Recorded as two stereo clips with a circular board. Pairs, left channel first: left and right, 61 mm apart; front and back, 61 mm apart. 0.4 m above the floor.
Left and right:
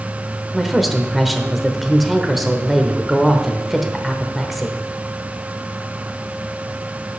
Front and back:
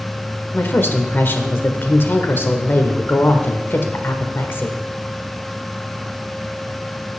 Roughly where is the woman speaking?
Ahead.